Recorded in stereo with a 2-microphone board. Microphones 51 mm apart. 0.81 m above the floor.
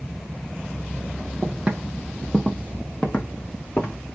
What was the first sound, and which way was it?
Footsteps, 35° right (ahead or behind).